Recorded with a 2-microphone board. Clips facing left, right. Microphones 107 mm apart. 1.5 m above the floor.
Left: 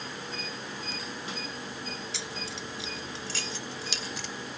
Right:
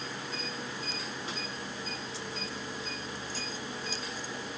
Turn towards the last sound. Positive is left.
turn(degrees=90)